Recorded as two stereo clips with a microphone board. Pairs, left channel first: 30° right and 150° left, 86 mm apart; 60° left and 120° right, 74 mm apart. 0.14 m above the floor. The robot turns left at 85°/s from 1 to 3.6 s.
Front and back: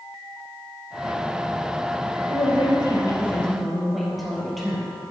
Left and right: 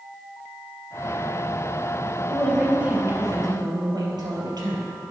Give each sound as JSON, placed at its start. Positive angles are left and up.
{"t": 2.3, "sound": "a woman speaking", "azimuth_deg": -10, "distance_m": 3.5}